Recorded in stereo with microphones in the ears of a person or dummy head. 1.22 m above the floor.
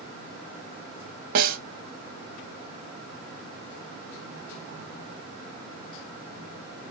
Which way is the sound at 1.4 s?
50° right (ahead or behind).